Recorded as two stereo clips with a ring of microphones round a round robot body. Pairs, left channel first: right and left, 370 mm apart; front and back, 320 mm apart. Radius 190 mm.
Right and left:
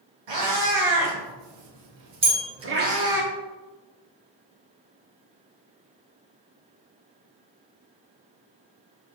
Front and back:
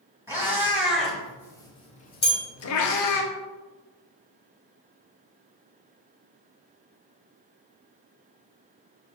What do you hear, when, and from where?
0.3 s a cat meowing: 95° left, 1.7 m; by 3.2 s 5° left, 0.7 m
2.2 s a bell: 40° left, 1.3 m